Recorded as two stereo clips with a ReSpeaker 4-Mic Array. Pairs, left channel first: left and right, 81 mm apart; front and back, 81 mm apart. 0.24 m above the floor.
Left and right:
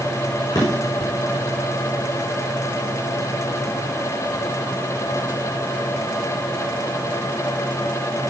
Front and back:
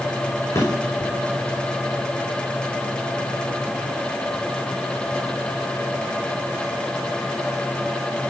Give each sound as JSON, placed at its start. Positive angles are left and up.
{"t": 0.5, "sound": "a drawer", "azimuth_deg": 55, "distance_m": 5.5}